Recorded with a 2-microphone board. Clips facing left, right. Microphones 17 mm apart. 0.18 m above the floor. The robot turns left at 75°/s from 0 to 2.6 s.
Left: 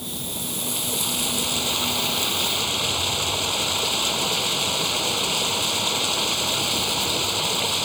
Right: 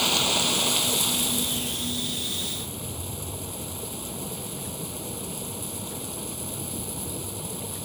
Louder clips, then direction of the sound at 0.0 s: Right 9 dB; 105° right.